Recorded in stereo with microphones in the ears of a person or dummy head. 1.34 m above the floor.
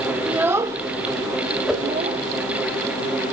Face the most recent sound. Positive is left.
turn(degrees=-10)  # may be behind; listen again after turning